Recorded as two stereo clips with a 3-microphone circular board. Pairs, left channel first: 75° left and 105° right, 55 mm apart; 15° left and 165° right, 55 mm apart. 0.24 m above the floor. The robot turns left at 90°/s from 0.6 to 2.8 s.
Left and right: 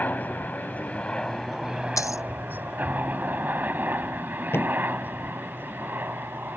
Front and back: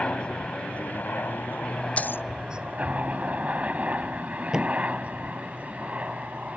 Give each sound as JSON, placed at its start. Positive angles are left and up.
{"t": 0.0, "sound": "a helicopter", "azimuth_deg": 65}
{"t": 2.0, "sound": "a dropped coin", "azimuth_deg": 80}
{"t": 4.5, "sound": "a thud", "azimuth_deg": 115}